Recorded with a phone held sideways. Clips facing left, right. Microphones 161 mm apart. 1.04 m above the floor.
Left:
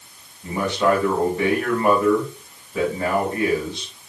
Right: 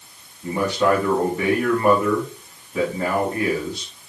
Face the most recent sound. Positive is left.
turn(degrees=-10)  # may be behind; listen again after turning